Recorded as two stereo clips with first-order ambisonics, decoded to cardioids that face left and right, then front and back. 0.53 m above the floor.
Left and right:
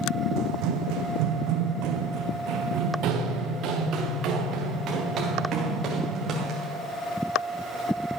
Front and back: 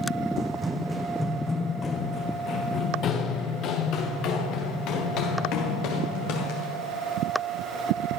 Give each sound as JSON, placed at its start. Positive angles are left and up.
{"t": 0.4, "sound": "running footsteps", "azimuth_deg": -115, "distance_m": 1.2}